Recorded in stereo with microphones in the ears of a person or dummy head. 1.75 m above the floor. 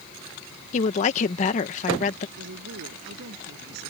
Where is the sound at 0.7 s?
45° left (ahead or behind).